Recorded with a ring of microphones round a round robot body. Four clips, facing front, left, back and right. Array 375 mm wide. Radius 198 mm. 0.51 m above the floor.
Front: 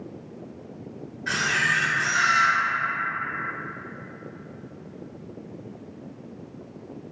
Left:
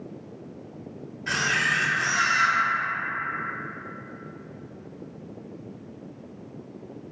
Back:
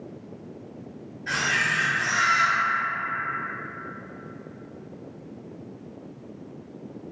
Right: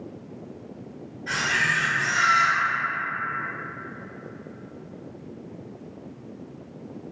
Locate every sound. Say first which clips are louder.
1.3 s a camera shutter: even, front 1 dB; 55° left, 0.7 m